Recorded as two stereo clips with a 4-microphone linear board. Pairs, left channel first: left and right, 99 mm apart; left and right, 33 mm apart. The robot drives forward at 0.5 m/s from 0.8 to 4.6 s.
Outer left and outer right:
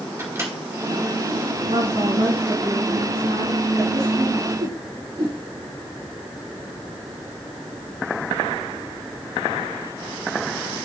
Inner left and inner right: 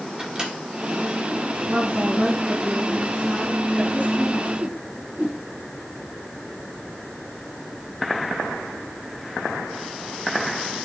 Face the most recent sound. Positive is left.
turn(degrees=-55)  # may be behind; listen again after turning